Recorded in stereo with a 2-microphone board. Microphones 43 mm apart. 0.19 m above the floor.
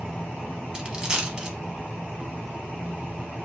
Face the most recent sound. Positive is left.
turn(degrees=-20)  # may be behind; listen again after turning